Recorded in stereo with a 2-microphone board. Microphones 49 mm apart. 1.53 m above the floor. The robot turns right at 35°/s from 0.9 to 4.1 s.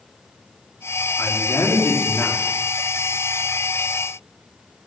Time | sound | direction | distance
1.2 | a man speaking | 85° left | 3 m